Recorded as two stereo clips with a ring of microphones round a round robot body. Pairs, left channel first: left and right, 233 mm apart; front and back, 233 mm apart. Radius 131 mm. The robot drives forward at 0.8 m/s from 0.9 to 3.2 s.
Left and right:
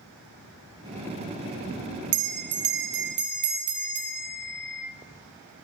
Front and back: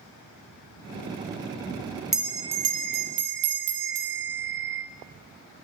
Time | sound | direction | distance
2.1 | a bell | 90° right | 0.8 m